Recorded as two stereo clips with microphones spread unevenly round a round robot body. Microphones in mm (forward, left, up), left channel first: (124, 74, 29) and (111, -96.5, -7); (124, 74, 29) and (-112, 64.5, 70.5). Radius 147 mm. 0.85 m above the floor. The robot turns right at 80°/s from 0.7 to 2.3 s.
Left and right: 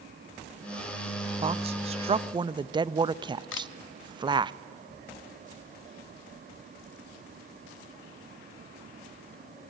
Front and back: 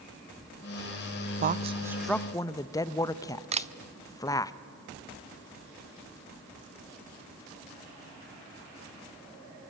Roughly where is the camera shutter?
Behind left.